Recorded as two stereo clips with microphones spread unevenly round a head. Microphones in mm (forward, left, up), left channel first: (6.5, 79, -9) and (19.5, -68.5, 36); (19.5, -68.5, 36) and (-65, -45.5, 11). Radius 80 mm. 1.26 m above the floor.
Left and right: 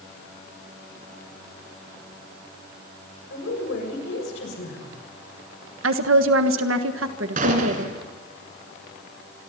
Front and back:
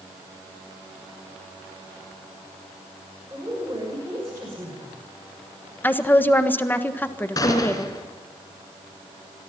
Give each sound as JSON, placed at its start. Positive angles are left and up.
{"t": 3.3, "sound": "a woman speaking", "azimuth_deg": 90, "distance_m": 7.0}
{"t": 5.8, "sound": "a woman speaking", "azimuth_deg": -90, "distance_m": 1.5}
{"t": 7.4, "sound": "a gunshot", "azimuth_deg": -55, "distance_m": 3.5}